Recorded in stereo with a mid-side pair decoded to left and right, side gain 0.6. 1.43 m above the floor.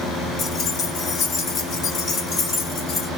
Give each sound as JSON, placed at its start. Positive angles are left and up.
{"t": 0.4, "sound": "keys jangling", "azimuth_deg": 45, "distance_m": 1.1}